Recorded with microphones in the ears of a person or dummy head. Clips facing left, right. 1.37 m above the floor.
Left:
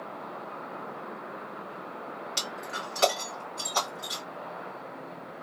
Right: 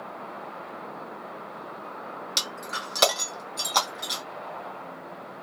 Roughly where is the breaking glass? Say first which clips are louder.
Even; right.